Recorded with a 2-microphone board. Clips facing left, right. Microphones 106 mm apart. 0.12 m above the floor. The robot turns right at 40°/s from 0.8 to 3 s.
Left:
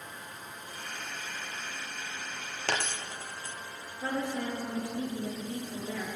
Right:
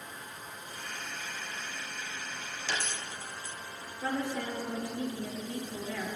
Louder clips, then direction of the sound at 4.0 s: Left 1 dB; 25° left (ahead or behind).